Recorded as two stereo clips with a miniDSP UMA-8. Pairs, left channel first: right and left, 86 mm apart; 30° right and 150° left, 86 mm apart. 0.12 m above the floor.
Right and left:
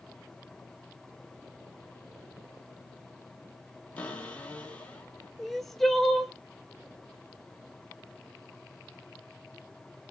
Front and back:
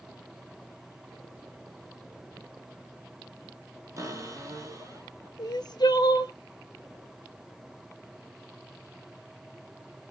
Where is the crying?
Straight ahead, 0.7 m.